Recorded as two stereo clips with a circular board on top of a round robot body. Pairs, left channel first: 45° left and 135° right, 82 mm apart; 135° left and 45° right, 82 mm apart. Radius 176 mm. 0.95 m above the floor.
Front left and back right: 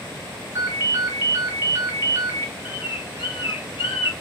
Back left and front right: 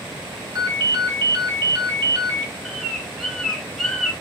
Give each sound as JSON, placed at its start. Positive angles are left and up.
{"t": 0.6, "sound": "a ringtone", "azimuth_deg": -75, "distance_m": 0.8}
{"t": 2.6, "sound": "a bird", "azimuth_deg": 50, "distance_m": 0.5}